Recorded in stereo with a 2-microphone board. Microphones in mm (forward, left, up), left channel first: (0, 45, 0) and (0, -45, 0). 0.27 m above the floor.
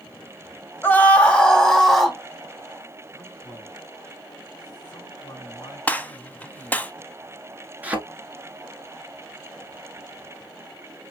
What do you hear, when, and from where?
0.8 s a scream: 20° left (ahead or behind), 1.2 m; by 2.2 s centre (ahead or behind), 2.0 m
3.1 s a man speaking: 50° left (ahead or behind), 3.5 m
5.9 s a gunshot: 15° left (ahead or behind), 0.5 m
7.8 s a thud: 15° right (ahead or behind), 1.3 m